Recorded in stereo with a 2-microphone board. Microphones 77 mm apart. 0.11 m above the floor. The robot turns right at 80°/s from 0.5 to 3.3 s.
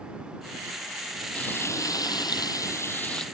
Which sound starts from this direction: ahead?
Frying, at 1.4 s.